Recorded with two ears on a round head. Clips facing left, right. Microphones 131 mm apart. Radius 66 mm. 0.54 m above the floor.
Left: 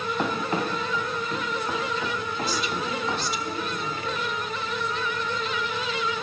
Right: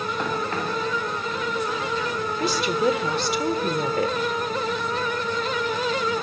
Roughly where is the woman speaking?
Right.